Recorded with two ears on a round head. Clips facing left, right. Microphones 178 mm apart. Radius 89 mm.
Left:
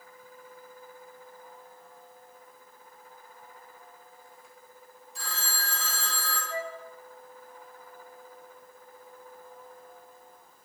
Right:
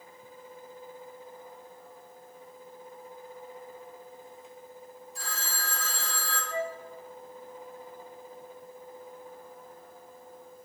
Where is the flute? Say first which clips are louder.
Right 3 dB; 35° left (ahead or behind), 0.9 m.